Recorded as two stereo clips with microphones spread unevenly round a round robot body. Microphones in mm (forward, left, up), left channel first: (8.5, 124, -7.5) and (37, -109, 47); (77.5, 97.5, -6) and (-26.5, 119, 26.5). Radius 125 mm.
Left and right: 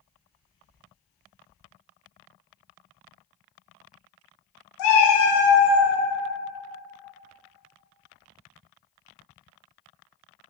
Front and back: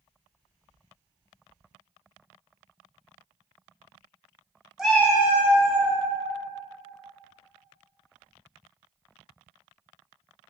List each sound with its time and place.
4.8 s a cat meowing: 85° left, 0.6 m; by 5.9 s 10° right, 0.7 m